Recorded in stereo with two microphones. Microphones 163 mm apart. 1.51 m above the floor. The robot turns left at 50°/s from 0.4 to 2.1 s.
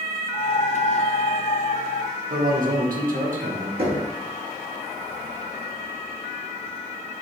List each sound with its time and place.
2.3 s a man speaking: 60° right (ahead or behind), 1.1 m
3.8 s knocking: 65° right (ahead or behind), 1.8 m